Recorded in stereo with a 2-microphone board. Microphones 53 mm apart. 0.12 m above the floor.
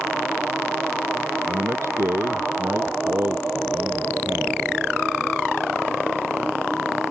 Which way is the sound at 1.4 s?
60° right (ahead or behind).